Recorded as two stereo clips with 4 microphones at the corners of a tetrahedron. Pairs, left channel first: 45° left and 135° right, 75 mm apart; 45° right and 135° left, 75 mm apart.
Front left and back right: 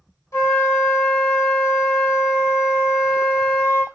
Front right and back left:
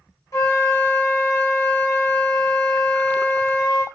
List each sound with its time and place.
0.3 s a flute: straight ahead, 2 m